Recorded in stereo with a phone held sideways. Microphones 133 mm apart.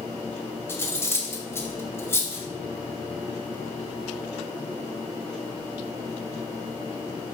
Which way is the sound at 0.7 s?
20° left (ahead or behind).